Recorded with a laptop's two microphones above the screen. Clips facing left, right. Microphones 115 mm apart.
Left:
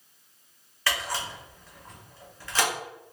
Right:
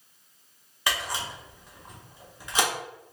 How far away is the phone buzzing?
I don't hear a phone buzzing.